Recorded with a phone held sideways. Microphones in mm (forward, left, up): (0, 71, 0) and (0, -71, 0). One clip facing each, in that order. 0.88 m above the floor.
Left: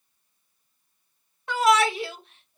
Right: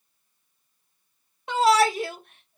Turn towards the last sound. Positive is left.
turn(degrees=-60)  # may be behind; listen again after turning